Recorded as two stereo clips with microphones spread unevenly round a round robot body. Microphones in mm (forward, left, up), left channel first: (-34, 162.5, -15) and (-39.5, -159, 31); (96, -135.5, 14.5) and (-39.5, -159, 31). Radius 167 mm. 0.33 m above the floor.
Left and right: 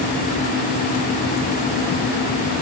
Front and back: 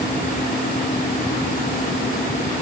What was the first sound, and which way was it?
Only background noise.